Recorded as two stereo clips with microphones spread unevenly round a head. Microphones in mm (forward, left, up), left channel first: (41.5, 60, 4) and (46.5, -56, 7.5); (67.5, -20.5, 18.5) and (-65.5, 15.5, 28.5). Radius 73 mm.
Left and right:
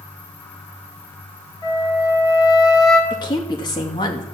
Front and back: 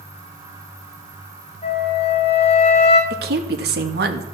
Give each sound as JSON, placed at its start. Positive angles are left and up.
{"t": 1.6, "sound": "a flute", "azimuth_deg": 35, "distance_m": 3.0}
{"t": 3.1, "sound": "a woman speaking", "azimuth_deg": 155, "distance_m": 2.0}